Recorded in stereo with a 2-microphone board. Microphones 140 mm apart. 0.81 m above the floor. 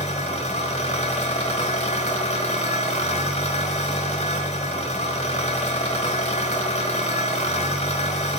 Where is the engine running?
50° left (ahead or behind), 1.1 m.